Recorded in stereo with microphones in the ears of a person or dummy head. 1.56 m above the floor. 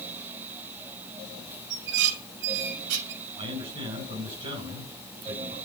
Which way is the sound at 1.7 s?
75° right (ahead or behind).